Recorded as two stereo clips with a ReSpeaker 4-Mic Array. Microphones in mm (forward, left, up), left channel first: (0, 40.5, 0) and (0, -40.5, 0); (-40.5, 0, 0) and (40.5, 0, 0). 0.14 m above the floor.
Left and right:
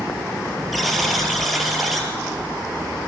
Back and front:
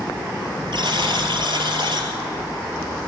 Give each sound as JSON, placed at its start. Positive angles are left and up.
{"t": 0.7, "sound": "a buzzer", "azimuth_deg": 0, "distance_m": 2.5}